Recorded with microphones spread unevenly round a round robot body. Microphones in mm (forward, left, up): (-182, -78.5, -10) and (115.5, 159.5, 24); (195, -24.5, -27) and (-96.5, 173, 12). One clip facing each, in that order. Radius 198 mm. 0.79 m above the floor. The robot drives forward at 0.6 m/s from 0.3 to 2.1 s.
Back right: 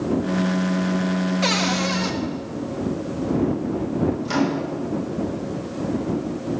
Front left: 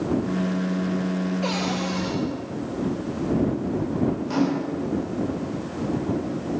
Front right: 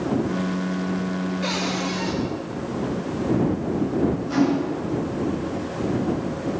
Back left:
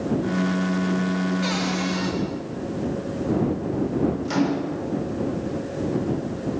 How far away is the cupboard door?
About 1.4 m.